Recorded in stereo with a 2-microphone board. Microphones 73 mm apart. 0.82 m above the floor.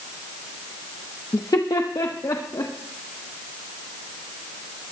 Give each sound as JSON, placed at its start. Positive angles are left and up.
{"t": 1.3, "sound": "laughter", "side_deg": 55, "distance_m": 0.7}